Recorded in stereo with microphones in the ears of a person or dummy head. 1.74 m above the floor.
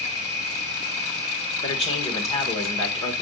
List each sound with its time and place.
0.0 s an insect: 45° left (ahead or behind), 5.5 m
1.6 s a man speaking: 40° left (ahead or behind), 1.8 m